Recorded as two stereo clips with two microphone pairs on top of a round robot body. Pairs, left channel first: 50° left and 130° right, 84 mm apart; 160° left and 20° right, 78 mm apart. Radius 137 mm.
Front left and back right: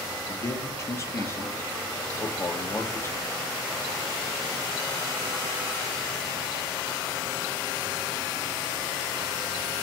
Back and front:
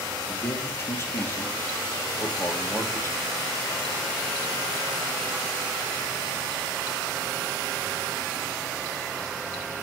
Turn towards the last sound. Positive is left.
turn(degrees=105)